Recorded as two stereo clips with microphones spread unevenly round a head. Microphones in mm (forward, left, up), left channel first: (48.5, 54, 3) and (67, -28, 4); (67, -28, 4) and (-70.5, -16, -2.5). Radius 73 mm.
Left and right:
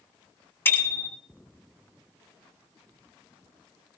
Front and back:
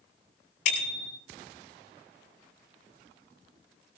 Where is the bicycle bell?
40° left, 9 m.